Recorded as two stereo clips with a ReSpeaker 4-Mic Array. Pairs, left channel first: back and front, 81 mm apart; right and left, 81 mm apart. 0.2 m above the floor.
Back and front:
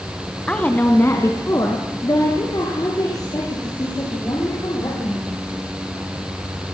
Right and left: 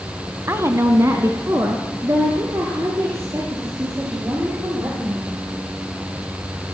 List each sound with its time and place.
0.5 s a woman speaking: 110° left, 1.4 m; by 5.3 s 145° left, 8 m